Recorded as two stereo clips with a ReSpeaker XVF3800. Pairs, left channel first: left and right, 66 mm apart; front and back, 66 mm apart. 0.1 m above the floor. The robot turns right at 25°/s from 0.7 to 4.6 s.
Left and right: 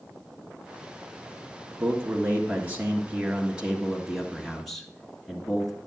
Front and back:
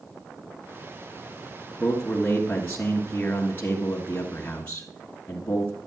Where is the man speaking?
70° right, 1.5 m; by 5.8 s straight ahead, 1.5 m.